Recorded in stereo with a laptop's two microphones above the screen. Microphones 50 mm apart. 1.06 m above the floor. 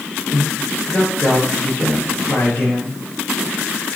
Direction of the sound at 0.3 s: 30° left (ahead or behind).